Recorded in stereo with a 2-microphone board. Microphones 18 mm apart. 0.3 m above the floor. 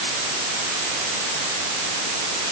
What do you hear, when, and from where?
Only background noise.